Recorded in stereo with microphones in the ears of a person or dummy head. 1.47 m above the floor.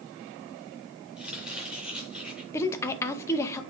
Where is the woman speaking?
15° left (ahead or behind), 0.7 m.